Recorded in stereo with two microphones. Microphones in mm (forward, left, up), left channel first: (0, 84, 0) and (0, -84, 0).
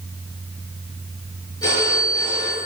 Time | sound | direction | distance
1.6 | a phone ringing | 25° left (ahead or behind) | 9.5 m